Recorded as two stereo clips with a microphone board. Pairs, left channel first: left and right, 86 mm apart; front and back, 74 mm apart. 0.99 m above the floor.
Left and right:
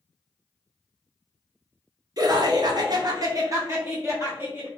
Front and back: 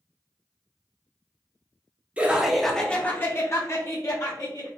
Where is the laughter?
115° right, 0.7 m; by 4.7 s 30° right, 1.3 m.